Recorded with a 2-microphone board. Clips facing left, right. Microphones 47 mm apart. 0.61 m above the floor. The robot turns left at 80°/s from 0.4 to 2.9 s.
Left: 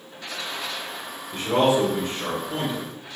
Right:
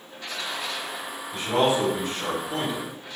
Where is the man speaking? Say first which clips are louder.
Left 2 dB; 60° left (ahead or behind), 1.7 m; by 2.9 s 20° right (ahead or behind), 1.7 m.